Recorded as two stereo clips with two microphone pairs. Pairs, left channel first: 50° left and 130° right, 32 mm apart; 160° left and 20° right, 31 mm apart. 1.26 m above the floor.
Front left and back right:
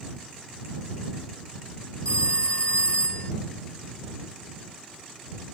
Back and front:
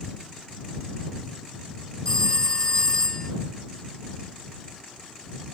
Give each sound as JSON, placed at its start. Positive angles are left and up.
{"t": 2.0, "sound": "a phone ringing", "azimuth_deg": 95}